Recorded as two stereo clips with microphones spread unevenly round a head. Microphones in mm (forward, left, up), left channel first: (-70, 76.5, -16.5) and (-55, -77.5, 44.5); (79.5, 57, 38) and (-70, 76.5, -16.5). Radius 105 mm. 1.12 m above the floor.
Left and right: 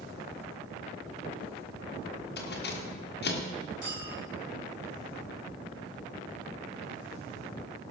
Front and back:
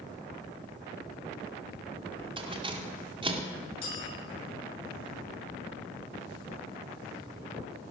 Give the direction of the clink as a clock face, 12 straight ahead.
11 o'clock.